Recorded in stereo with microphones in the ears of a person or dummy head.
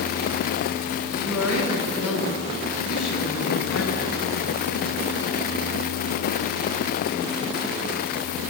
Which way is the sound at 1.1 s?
85° left.